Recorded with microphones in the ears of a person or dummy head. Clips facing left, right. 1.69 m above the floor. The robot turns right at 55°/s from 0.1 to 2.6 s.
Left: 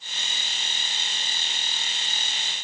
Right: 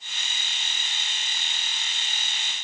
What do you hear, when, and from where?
Only background noise.